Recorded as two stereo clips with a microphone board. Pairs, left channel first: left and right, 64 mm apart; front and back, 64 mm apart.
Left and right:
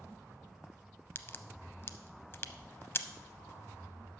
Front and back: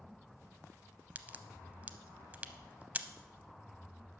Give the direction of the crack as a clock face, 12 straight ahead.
8 o'clock.